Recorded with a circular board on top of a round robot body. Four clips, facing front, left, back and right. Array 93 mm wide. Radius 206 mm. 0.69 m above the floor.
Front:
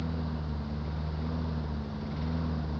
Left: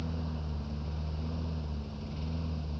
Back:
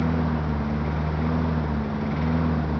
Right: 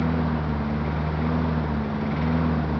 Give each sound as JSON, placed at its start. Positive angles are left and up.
{"t": 0.0, "sound": "a lawn mower", "azimuth_deg": -130}